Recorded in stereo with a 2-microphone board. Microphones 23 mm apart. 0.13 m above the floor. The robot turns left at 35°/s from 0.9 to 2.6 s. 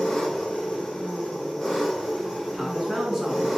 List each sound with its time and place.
0.0 s an engine running: 45° left, 1.9 m; by 3.6 s 15° right, 1.9 m
2.5 s a man speaking: 20° right (ahead or behind), 1.1 m